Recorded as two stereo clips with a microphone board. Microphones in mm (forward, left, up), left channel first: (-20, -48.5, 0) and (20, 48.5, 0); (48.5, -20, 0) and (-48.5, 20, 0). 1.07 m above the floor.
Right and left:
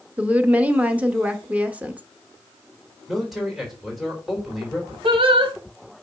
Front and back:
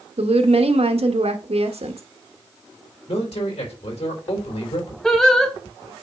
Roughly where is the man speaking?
Ahead.